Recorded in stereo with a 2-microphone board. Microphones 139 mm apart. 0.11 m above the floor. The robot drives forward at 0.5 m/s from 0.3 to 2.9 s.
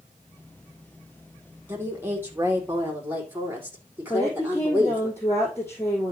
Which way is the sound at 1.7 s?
15° right (ahead or behind).